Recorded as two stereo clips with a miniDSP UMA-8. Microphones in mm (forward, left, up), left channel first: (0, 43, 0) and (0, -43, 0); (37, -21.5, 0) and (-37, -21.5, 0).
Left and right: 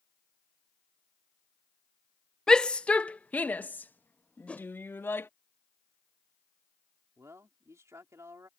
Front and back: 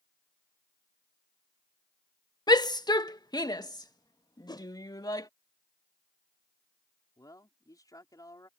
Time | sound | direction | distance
2.5 | a shout | 10° left | ?
4.5 | a whoosh | 15° left | ?
7.2 | a man speaking | 35° right | ?